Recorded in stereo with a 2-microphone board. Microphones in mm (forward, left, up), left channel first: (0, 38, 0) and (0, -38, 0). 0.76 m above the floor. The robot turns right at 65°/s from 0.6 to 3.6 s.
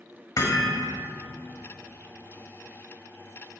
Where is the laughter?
I don't hear laughter.